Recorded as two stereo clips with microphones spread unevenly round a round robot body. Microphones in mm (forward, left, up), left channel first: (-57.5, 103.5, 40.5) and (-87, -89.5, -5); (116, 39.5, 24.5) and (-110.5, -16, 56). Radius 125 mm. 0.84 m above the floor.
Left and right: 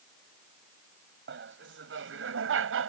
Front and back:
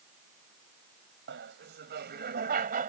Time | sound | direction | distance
1.3 | laughter | 120° right | ?